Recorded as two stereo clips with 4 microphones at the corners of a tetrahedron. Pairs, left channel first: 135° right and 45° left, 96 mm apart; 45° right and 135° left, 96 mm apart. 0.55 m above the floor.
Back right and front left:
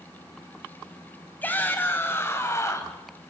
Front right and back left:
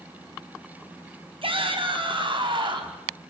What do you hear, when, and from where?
1.4 s a shout: 155° left, 3.5 m; by 3.0 s 170° left, 3.5 m